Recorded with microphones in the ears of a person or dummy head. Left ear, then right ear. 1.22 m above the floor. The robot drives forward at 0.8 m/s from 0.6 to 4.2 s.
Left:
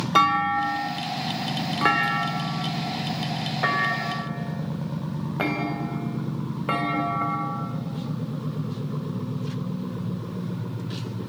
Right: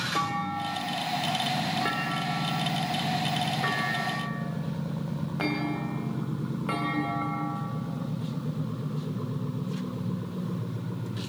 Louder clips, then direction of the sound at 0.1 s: Left 15 dB; 65° left (ahead or behind).